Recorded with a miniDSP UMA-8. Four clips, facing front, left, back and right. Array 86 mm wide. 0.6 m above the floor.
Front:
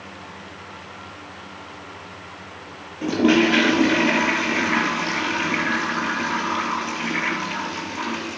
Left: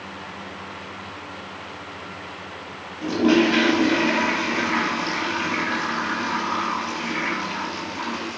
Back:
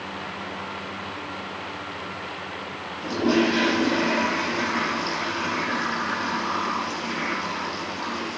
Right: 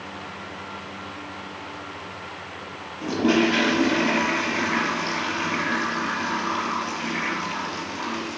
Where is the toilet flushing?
5° left, 4.5 m.